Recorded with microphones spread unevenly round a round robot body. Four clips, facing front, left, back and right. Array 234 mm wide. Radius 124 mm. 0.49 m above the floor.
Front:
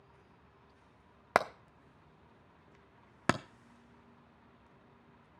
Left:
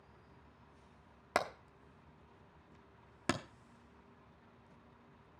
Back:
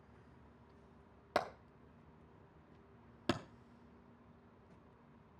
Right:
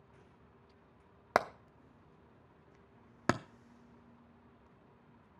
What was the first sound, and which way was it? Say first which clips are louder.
Hammering: right 5 dB, front 7 dB; 85° right.